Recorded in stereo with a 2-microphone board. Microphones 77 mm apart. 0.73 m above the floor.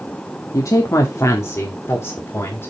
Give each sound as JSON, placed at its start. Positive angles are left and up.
{"t": 0.5, "sound": "a woman speaking", "side_deg": 45, "distance_m": 0.9}